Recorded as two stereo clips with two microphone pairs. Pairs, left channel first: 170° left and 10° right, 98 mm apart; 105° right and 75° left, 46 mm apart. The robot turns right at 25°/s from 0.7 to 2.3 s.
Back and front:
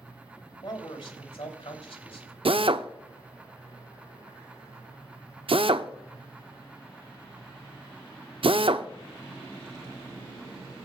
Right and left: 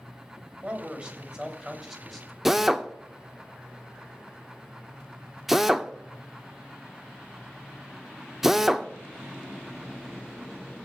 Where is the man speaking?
125° left, 2.5 m; by 2.4 s 165° left, 2.5 m.